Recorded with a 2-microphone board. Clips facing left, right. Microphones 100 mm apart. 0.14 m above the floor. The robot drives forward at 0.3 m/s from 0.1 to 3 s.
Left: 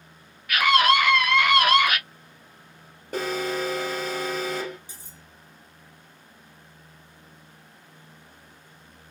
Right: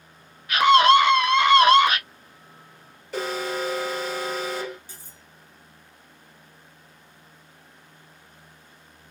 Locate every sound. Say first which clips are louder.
0.5 s a scream: right 5 dB; 25° right (ahead or behind), 1.4 m
3.1 s an alarm: left 1 dB; 45° left (ahead or behind), 2 m
4.9 s cutlery clinking: even; 20° left (ahead or behind), 2 m